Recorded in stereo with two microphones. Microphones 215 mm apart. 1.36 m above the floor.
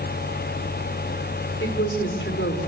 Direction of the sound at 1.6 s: 65° left (ahead or behind).